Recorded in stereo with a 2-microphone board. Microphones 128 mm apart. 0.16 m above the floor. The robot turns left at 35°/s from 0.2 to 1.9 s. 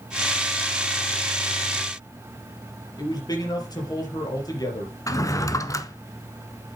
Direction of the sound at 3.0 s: 30° left (ahead or behind).